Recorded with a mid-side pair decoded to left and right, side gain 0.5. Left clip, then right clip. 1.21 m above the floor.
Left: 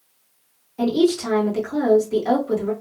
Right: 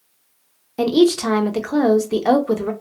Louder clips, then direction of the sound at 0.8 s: Right 4 dB; 65° right.